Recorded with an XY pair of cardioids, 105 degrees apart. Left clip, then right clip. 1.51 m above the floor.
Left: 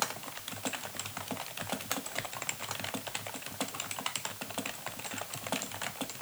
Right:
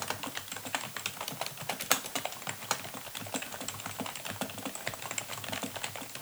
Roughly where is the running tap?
No running tap in this recording.